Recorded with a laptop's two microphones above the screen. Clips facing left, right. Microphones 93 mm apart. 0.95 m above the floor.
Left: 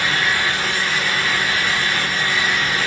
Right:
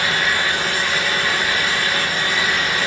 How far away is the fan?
About 1.0 m.